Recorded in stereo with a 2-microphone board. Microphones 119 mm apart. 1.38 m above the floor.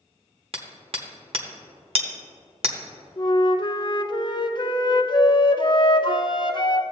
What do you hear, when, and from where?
0.5 s hammering: 50° right (ahead or behind), 1.0 m
3.2 s a flute: 40° left (ahead or behind), 0.5 m